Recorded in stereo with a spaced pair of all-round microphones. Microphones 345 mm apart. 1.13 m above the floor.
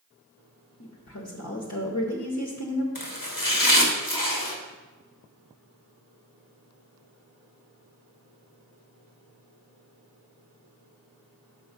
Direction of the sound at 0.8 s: 50° left (ahead or behind).